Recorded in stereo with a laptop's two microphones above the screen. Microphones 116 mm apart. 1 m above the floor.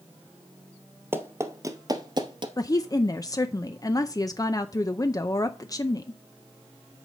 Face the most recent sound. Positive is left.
turn(degrees=30)  # may be behind; listen again after turning